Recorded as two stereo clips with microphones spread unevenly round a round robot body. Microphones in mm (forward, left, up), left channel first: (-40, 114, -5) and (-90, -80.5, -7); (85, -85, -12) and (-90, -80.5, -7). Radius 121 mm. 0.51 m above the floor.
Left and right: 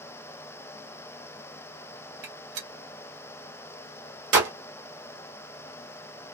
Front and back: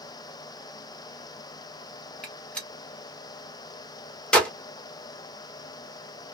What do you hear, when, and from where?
2.2 s a gunshot: 85° right, 1.2 m